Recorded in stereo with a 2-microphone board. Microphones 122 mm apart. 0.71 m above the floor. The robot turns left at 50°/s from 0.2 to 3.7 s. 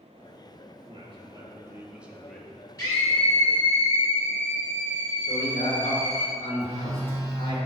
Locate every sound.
0.8 s a man speaking: 105° right, 1.2 m; by 2.6 s 165° left, 1.2 m
2.8 s a scream: 150° left, 3 m; by 6.3 s 100° left, 3 m
5.3 s a man speaking: 70° left (ahead or behind), 2.5 m
6.6 s a phone buzzing: 35° left (ahead or behind), 1.8 m